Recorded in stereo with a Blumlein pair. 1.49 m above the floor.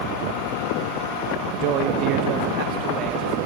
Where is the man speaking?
45° right, 2 m; by 3.4 s 30° right, 4 m.